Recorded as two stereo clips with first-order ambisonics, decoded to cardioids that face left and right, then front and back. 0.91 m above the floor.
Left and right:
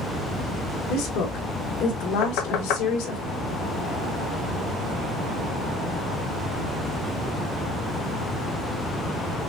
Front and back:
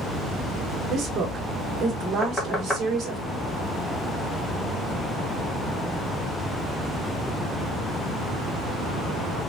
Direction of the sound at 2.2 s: 80° left.